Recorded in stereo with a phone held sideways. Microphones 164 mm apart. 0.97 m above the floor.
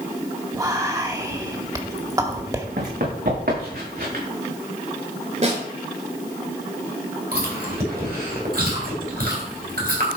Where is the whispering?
20° right (ahead or behind), 1.7 m.